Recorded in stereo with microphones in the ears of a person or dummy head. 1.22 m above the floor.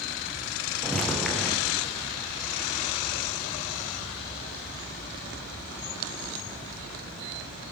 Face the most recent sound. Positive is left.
turn(degrees=0)  # may be behind; listen again after turning